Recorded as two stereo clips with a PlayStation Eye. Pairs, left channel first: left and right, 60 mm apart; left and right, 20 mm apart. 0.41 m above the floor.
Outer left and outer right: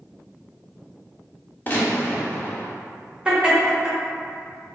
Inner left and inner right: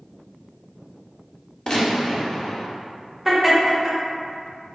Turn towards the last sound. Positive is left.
turn(degrees=-15)  # may be behind; listen again after turning